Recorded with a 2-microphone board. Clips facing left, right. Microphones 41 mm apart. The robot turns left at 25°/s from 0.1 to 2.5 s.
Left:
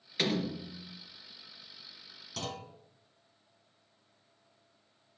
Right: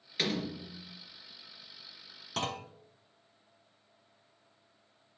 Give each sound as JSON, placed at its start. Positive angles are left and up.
{"t": 0.2, "sound": "a door slam", "side_deg": 0, "distance_m": 2.5}
{"t": 2.4, "sound": "a clunk", "side_deg": -40, "distance_m": 0.9}